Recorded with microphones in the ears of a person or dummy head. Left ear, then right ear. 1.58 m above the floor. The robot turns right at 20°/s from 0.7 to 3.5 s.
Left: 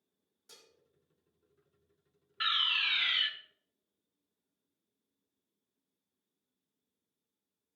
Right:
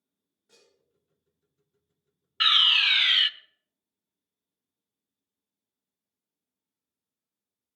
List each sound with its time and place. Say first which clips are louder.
0.5 s dishes clattering: left 3 dB; 75° left (ahead or behind), 3 m
2.4 s a fire alarm: right 10 dB; 25° right (ahead or behind), 0.6 m; by 3.3 s 20° right (ahead or behind), 0.6 m